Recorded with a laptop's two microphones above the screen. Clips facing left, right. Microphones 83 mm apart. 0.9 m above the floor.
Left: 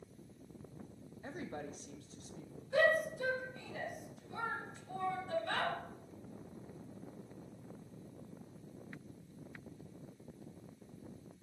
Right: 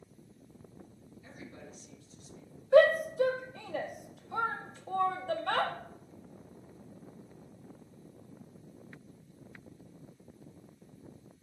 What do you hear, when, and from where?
1.2 s a woman speaking: 50° left (ahead or behind), 1.2 m
2.7 s a shout: 70° right (ahead or behind), 1.3 m